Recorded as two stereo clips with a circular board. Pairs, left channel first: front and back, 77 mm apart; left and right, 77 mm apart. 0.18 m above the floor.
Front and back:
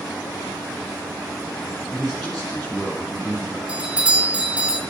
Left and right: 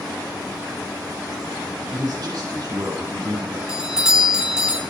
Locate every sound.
1.9 s a man speaking: 90° right, 2 m
3.7 s a doorbell: 155° right, 1.5 m